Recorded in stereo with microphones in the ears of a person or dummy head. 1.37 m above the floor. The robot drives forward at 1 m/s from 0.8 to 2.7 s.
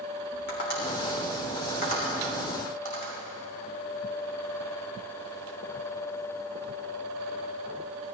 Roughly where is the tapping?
Left.